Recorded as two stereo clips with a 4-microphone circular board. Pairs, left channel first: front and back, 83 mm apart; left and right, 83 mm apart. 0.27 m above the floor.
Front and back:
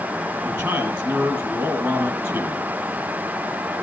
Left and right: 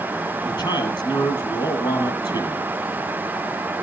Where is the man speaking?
105° left, 6.5 m.